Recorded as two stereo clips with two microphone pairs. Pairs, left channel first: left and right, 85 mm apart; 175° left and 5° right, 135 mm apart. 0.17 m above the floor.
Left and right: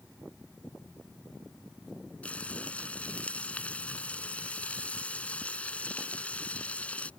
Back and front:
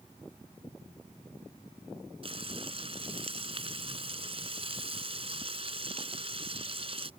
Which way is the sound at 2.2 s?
20° left.